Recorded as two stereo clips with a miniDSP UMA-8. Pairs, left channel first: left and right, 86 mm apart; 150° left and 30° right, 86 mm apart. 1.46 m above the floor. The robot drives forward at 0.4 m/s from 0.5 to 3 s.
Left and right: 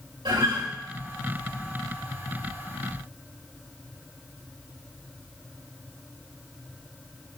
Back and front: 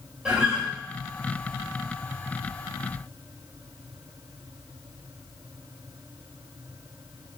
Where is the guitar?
110° right, 4 m.